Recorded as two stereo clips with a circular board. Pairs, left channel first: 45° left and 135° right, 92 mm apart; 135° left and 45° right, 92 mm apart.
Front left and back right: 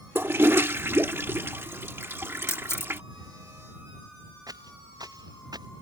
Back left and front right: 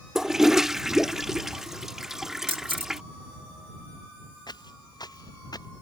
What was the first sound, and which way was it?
A toilet flushing, 125° right.